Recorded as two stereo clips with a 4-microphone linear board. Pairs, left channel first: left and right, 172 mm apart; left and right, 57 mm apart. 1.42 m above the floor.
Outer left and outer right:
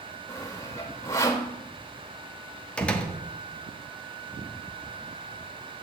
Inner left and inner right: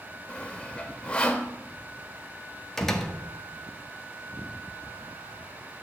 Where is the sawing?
15° left (ahead or behind), 2 m.